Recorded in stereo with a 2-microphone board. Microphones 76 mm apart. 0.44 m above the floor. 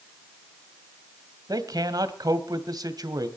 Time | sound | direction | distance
1.5 | a man speaking | 60° right (ahead or behind) | 2.0 m